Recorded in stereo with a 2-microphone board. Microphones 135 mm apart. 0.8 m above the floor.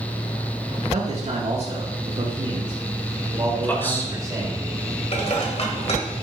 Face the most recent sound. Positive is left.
turn(degrees=50)  # may be behind; listen again after turning